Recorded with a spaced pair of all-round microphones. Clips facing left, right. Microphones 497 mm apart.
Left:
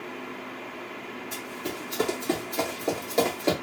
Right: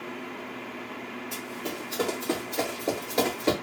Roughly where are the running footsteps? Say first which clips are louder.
Left 1 dB; left.